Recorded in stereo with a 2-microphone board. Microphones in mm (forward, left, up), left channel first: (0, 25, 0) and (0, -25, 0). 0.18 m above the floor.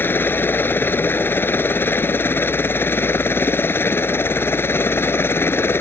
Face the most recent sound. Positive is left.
turn(degrees=50)  # may be behind; listen again after turning